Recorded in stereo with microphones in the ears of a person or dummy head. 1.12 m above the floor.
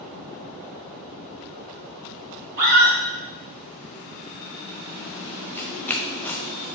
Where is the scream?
60° right (ahead or behind), 3 m.